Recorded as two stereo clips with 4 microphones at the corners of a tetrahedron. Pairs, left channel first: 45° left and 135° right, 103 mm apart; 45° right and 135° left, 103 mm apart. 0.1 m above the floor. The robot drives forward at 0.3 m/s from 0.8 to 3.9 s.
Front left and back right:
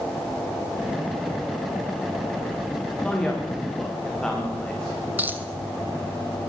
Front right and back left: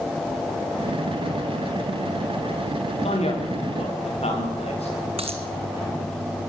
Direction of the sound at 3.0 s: 35° right.